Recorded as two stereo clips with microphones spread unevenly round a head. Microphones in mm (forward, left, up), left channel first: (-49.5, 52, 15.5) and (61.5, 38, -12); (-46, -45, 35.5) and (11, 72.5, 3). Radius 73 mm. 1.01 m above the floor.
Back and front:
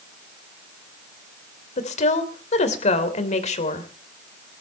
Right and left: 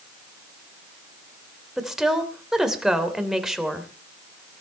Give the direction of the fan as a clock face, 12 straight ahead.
I don't hear a fan.